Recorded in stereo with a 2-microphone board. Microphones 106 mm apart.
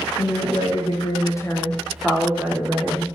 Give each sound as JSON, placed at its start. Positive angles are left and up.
{"t": 0.2, "sound": "a woman speaking", "side_deg": 70, "distance_m": 0.8}